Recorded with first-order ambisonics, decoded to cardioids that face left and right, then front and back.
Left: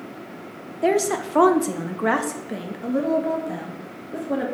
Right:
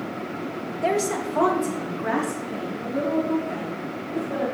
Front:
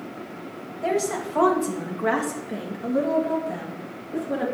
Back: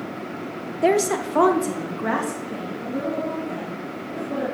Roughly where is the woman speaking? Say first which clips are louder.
Left 3 dB, back 5 dB; behind.